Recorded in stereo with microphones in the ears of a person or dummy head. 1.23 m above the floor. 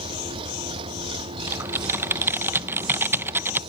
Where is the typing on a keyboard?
10° right (ahead or behind).